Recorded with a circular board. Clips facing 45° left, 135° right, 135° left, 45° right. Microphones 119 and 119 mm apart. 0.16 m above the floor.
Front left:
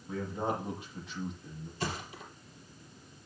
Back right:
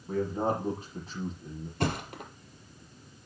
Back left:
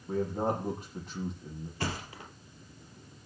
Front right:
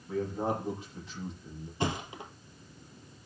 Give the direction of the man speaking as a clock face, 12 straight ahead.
6 o'clock.